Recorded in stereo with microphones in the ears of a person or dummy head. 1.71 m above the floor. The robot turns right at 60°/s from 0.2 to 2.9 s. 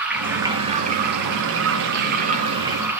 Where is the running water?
170° right, 4 m; by 3.0 s 10° right, 4 m.